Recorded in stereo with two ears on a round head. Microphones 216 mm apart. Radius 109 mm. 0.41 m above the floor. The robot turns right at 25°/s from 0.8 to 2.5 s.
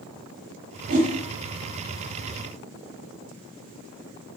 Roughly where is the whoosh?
Right.